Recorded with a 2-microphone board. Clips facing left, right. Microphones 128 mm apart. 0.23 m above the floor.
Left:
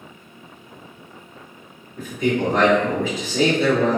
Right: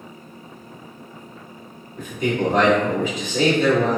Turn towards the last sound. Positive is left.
turn(degrees=-15)  # may be behind; listen again after turning